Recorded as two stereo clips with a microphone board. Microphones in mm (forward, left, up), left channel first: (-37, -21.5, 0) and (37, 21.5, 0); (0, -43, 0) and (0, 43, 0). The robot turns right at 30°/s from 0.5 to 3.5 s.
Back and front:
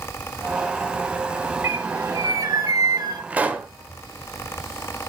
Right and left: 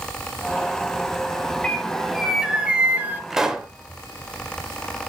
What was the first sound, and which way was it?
A bird, 15° right.